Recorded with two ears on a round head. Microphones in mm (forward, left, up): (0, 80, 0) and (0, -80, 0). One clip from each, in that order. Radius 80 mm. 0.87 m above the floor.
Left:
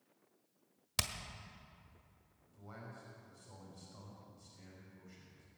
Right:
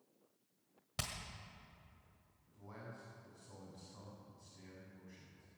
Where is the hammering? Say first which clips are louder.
Left 6 dB; 55° left (ahead or behind), 1.5 m.